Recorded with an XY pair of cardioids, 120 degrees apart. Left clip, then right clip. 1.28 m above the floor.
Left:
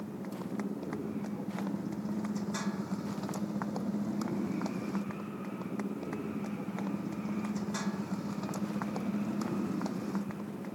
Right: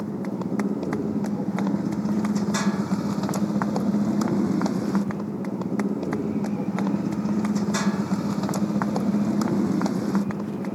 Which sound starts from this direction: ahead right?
A motorcycle, at 0.0 s.